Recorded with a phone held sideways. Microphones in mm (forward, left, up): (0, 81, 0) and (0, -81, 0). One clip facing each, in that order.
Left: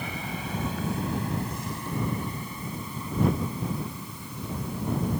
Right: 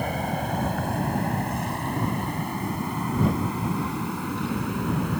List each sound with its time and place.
0.0 s an aircraft: 50° right (ahead or behind); by 5.2 s 70° right (ahead or behind)